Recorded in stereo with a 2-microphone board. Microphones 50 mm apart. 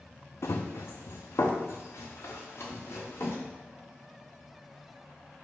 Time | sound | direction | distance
0.4 | running footsteps | 65° left (ahead or behind) | 0.5 m